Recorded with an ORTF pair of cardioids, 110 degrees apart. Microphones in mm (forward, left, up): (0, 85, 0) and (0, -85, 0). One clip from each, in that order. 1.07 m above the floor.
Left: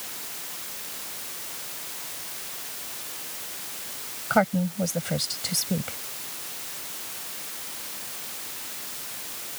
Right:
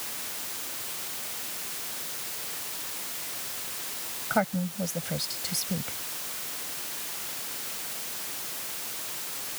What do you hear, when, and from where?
4.3 s a woman speaking: 30° left